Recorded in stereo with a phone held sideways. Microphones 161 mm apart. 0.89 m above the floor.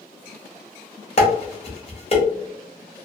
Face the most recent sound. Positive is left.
turn(degrees=40)  # may be behind; listen again after turning